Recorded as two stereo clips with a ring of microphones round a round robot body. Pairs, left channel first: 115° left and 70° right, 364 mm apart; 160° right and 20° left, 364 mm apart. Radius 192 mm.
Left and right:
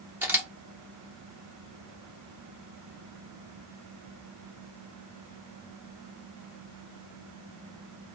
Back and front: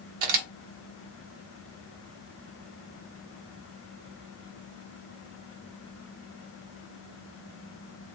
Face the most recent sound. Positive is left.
turn(degrees=15)